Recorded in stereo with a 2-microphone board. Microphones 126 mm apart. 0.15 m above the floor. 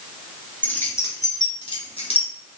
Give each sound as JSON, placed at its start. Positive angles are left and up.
{"t": 0.6, "sound": "keys jangling", "side_deg": 15, "distance_m": 1.9}